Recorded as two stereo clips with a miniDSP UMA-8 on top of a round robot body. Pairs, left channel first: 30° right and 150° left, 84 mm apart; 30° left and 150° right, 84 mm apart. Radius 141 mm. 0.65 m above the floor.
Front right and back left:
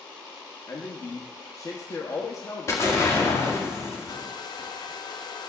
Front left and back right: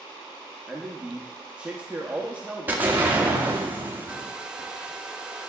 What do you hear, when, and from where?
0.7 s a man speaking: 75° right, 1.1 m
2.7 s an explosion: 85° right, 2 m
4.1 s a hair dryer: 70° right, 0.8 m